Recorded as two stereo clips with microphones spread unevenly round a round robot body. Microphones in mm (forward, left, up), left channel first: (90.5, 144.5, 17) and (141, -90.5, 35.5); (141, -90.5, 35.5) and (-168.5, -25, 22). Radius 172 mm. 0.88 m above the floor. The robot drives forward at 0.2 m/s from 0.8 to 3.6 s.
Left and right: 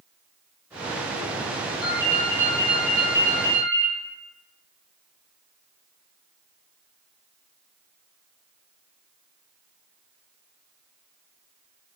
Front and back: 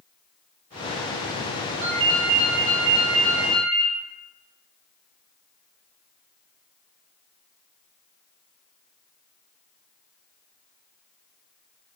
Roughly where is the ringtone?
Behind left.